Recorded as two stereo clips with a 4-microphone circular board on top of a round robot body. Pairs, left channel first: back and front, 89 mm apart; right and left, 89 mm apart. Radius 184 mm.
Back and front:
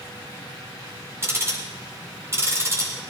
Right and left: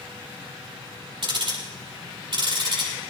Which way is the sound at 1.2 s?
60° left.